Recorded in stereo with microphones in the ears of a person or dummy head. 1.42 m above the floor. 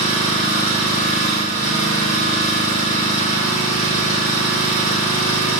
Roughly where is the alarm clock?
No alarm clock in this recording.